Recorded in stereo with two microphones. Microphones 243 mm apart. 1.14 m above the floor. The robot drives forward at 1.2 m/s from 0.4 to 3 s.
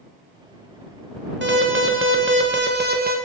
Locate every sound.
1.4 s an alarm: 50° right (ahead or behind), 1.7 m; by 3.2 s 40° right (ahead or behind), 1.9 m